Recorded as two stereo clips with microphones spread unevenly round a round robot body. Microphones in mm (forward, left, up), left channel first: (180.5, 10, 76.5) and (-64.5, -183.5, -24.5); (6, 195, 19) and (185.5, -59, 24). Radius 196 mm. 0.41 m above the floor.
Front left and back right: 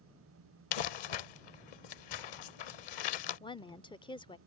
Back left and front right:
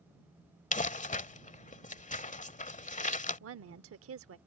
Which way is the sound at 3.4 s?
55° right.